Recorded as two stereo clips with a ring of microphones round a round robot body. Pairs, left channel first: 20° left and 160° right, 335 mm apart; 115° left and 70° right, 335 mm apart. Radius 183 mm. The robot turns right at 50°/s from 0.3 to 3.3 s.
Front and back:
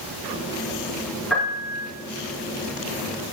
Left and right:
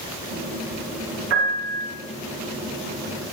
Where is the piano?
65° right, 3.5 m; by 1.9 s 40° right, 3.5 m.